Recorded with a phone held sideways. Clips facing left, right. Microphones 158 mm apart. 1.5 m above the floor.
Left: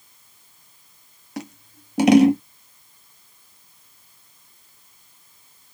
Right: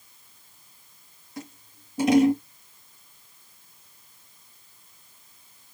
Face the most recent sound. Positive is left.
turn(degrees=85)